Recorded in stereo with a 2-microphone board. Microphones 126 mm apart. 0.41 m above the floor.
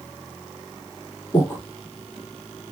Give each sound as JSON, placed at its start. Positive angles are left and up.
{"t": 1.3, "sound": "breathing", "side_deg": 20, "distance_m": 2.0}